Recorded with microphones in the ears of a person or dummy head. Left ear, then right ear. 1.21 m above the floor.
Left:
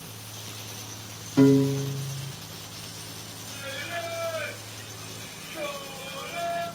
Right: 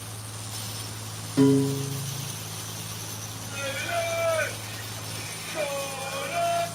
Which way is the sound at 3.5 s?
55° right (ahead or behind).